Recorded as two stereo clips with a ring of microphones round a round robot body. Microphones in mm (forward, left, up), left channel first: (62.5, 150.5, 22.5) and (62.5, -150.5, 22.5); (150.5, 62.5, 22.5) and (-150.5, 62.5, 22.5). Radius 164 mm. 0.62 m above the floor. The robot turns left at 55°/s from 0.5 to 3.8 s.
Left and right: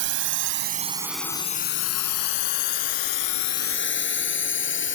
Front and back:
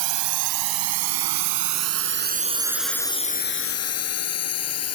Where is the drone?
145° right; by 5.0 s 40° left.